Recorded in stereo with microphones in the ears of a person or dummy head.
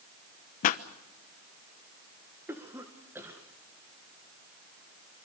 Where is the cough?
10° right (ahead or behind), 1.9 m.